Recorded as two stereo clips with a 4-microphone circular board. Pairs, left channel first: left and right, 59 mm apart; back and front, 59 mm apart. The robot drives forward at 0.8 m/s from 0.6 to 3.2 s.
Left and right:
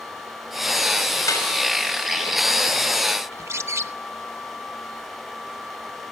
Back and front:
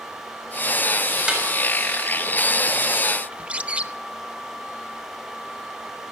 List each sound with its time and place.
1.3 s a snare drum: 75° left, 6 m
3.3 s a bird: 65° right, 0.8 m